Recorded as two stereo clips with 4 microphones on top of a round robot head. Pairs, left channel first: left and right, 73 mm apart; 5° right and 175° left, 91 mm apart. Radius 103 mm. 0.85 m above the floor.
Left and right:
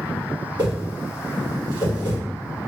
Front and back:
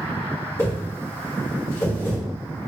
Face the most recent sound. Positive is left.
turn(degrees=-65)